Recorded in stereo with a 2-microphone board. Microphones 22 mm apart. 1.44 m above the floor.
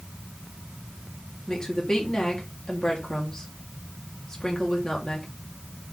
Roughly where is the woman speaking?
Centre.